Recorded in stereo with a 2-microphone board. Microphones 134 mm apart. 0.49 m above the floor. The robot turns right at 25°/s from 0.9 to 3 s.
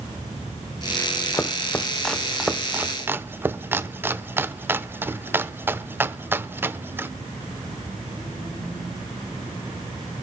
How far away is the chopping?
About 0.7 m.